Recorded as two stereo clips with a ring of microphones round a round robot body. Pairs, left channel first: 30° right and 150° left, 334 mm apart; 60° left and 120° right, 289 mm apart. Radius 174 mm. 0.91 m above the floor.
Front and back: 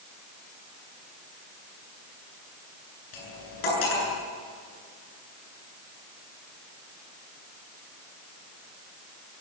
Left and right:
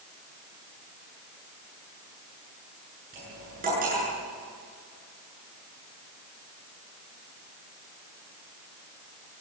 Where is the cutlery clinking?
55° right, 8.5 m.